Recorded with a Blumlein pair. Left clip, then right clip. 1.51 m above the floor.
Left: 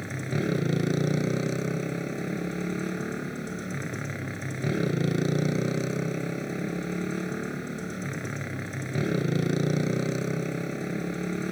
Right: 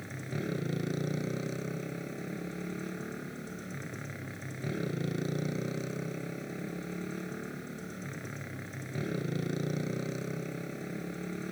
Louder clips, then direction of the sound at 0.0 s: Left 8 dB; 65° left.